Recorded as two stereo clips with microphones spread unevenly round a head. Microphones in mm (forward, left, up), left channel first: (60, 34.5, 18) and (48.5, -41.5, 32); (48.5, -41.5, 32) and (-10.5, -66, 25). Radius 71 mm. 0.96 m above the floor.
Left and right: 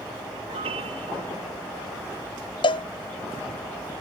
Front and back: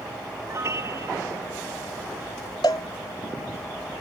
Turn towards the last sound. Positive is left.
turn(degrees=75)